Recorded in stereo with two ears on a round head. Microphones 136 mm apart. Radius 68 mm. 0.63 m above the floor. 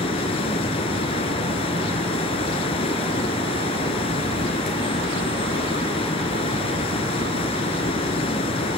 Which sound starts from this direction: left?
Running water, at 0.0 s.